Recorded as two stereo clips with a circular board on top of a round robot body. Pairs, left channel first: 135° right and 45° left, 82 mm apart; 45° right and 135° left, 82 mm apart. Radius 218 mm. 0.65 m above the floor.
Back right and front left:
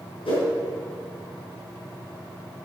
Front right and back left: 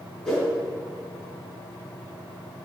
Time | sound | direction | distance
0.2 | a whoosh | 125° right | 3.5 m